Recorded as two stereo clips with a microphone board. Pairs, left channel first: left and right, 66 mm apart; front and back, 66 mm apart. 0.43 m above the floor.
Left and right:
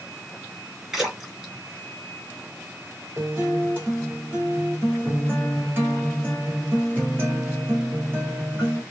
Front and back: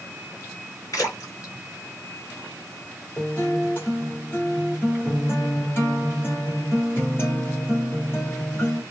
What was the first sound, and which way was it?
A splash, 10° right.